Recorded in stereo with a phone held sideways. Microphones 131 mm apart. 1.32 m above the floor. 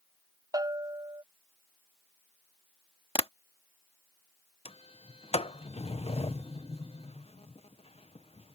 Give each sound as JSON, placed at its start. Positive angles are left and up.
{"t": 0.5, "sound": "a bell", "side_deg": -30}
{"t": 3.1, "sound": "tapping", "side_deg": 45}
{"t": 4.7, "sound": "a sliding door", "side_deg": 50}